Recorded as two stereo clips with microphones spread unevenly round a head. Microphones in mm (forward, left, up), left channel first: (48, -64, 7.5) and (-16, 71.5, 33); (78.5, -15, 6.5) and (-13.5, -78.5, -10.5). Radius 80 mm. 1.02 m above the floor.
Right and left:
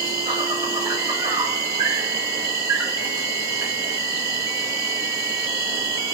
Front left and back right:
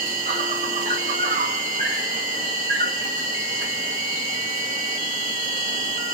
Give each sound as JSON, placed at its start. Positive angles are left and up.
{"t": 0.0, "sound": "an insect", "azimuth_deg": -170, "distance_m": 2.5}